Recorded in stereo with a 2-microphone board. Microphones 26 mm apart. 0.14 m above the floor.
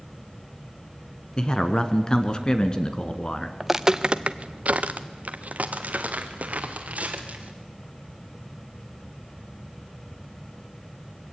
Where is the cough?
No cough in this recording.